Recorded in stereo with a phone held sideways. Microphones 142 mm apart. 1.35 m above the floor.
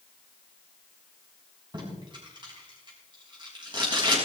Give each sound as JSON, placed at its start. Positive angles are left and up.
{"t": 1.7, "sound": "tape being pulled", "side_deg": -35, "distance_m": 5.0}